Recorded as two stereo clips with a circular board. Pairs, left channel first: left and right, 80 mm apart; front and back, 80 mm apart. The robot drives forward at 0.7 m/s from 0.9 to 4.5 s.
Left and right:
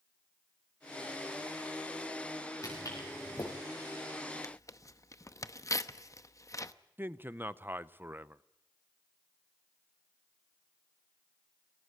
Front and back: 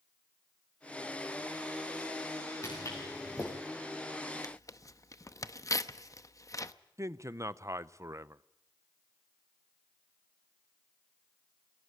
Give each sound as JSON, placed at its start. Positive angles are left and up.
{"t": 2.6, "sound": "footsteps", "azimuth_deg": 45, "distance_m": 7.0}
{"t": 4.4, "sound": "tearing paper", "azimuth_deg": 40, "distance_m": 0.8}
{"t": 7.0, "sound": "a man speaking", "azimuth_deg": -145, "distance_m": 0.6}